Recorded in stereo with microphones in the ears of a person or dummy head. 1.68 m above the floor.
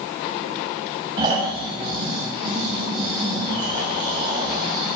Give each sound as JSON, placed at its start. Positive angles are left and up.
{"t": 1.2, "sound": "snoring", "side_deg": -25, "distance_m": 6.5}